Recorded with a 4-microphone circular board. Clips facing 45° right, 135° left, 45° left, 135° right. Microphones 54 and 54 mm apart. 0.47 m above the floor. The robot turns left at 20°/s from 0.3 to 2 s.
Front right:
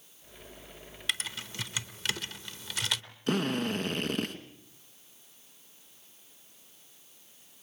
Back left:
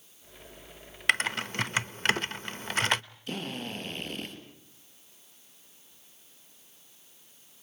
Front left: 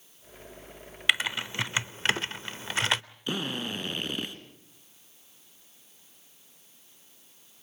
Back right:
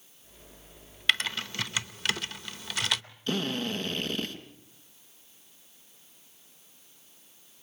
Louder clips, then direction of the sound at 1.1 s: Back left 9 dB, front left 2 dB; 120° left.